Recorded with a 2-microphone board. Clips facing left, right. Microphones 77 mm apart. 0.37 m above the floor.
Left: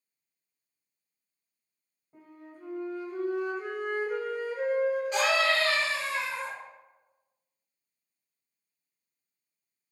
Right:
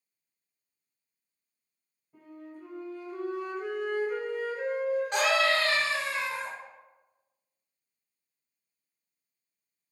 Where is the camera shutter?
I don't hear a camera shutter.